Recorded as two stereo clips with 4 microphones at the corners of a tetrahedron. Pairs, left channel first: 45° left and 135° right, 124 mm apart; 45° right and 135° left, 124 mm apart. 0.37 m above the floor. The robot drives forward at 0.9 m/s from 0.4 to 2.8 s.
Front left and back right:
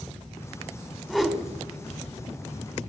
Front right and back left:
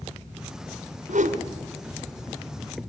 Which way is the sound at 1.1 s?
135° left.